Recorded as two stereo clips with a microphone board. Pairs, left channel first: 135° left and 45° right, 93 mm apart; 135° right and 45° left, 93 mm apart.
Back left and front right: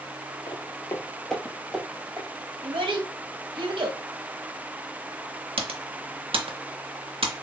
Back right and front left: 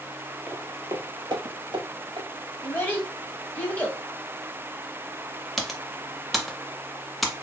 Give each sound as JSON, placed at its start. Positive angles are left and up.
{"t": 0.5, "sound": "footsteps", "azimuth_deg": 120, "distance_m": 0.7}
{"t": 2.6, "sound": "a child speaking", "azimuth_deg": -65, "distance_m": 1.3}
{"t": 5.6, "sound": "typing on a keyboard", "azimuth_deg": -45, "distance_m": 0.6}